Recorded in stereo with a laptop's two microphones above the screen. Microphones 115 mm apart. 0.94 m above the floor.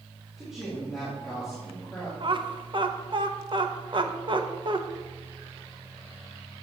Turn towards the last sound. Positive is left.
turn(degrees=-45)  # may be behind; listen again after turning